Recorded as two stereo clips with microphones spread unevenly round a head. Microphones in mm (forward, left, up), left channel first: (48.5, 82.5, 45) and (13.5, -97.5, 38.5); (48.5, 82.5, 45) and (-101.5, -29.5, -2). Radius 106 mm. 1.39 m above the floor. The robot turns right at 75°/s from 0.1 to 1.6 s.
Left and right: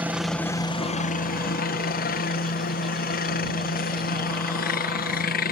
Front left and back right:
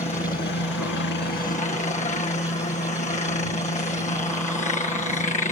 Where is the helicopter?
25° right; by 5.5 s 90° left.